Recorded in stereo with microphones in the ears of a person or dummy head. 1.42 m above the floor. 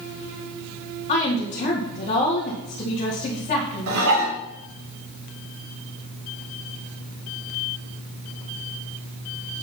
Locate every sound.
1.1 s a woman speaking: 35° left (ahead or behind), 2.0 m
3.9 s dishes clattering: 70° right (ahead or behind), 3 m